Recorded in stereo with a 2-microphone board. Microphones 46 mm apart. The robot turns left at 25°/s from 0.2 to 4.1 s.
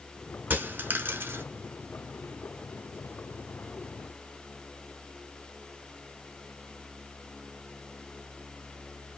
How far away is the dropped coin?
About 0.7 m.